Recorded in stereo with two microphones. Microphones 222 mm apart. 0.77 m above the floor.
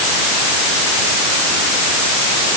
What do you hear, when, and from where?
Only background noise.